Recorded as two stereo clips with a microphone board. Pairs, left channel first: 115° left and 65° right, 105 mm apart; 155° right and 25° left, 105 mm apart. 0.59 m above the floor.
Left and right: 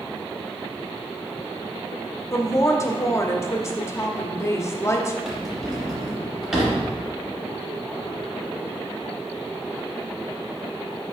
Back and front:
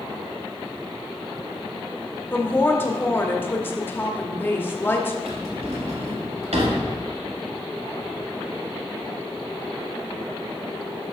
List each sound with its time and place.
2.3 s a woman speaking: 150° left, 0.7 m
5.2 s a drawer: 20° left, 2 m